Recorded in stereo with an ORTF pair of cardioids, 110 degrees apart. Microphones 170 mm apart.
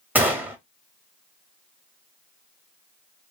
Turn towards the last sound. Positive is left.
turn(degrees=-10)